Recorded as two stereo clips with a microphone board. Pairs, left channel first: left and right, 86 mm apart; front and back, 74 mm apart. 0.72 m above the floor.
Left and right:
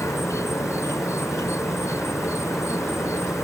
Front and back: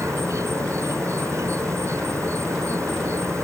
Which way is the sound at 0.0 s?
140° left.